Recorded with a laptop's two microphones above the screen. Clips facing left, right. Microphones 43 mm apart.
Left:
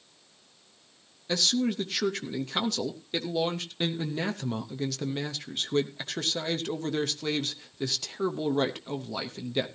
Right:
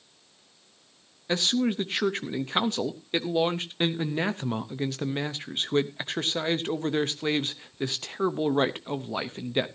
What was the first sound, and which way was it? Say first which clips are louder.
A man speaking: right 2 dB; 30° right (ahead or behind).